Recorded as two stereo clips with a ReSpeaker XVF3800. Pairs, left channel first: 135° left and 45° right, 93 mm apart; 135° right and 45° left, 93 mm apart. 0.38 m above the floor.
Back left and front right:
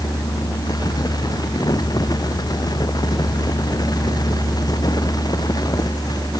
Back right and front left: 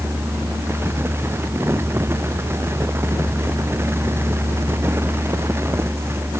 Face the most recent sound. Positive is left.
No sound to turn to.